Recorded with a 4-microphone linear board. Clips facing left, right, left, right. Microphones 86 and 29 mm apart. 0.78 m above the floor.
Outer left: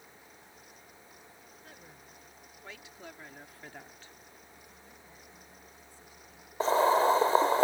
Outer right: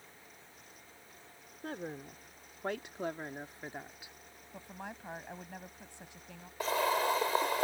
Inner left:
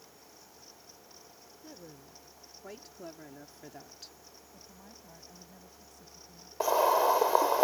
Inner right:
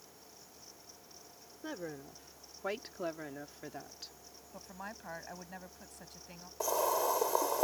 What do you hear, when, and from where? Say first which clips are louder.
1.6 s a woman speaking: outer right 16 dB, inner right 9 dB; 70° right (ahead or behind); by 4.1 s 10° right (ahead or behind)
4.5 s a woman speaking: outer right 9 dB, inner right 11 dB; 80° right
6.6 s boiling: outer left 7 dB, inner left 7 dB; 30° left (ahead or behind)